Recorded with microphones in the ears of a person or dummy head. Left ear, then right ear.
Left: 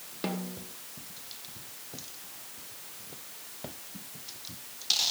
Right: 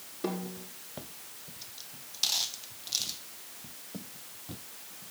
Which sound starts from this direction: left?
A snare drum, at 0.2 s.